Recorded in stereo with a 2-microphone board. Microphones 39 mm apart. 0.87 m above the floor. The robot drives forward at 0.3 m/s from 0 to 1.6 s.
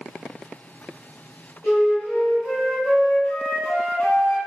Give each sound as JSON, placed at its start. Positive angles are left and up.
{"t": 1.6, "sound": "a flute", "side_deg": 55, "distance_m": 1.3}